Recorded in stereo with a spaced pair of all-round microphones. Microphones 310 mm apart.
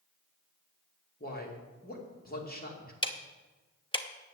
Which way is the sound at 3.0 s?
15° left (ahead or behind).